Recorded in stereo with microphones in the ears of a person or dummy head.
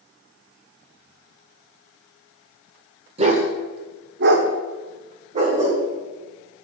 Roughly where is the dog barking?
Right.